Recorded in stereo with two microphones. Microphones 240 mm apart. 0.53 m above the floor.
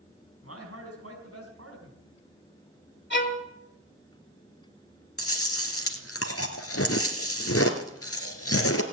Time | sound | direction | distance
0.4 | a man speaking | 75° right (ahead or behind) | 4.5 m
3.1 | a violin | 50° left (ahead or behind) | 1.5 m
5.2 | chewing | 75° left (ahead or behind) | 1.7 m